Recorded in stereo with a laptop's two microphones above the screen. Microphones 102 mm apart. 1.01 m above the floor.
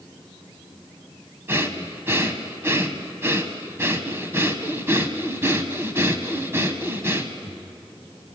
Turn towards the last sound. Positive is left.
turn(degrees=-25)  # may be behind; listen again after turning